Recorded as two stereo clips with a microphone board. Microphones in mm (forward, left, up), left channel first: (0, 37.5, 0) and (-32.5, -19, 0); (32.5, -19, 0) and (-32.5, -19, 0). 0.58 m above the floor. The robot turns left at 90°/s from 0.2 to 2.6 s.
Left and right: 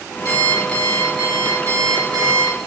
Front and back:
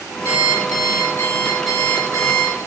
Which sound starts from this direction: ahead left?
An alarm clock, at 0.2 s.